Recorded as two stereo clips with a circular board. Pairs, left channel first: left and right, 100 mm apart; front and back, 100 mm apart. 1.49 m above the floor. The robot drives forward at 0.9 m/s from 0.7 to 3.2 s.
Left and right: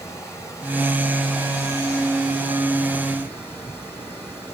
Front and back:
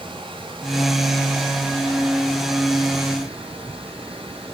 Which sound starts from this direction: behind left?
Running water, at 0.0 s.